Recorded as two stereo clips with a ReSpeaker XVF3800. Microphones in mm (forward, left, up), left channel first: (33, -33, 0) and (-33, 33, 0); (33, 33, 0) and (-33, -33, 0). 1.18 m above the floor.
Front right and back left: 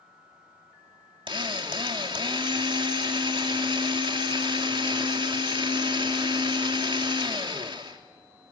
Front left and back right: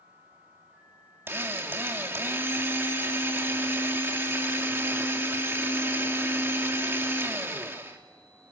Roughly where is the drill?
Behind.